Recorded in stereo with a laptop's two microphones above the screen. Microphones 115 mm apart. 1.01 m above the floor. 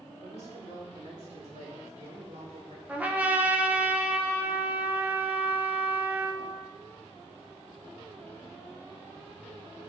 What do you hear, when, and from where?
0.2 s a man speaking: 70° right (ahead or behind), 2 m; by 2.8 s 80° right, 3.5 m
2.9 s a trumpet: 10° right (ahead or behind), 0.8 m